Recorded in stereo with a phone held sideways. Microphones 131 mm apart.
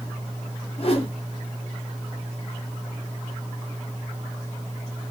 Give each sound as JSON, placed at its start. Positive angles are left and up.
{"t": 0.8, "sound": "a whoosh", "side_deg": 45, "distance_m": 0.7}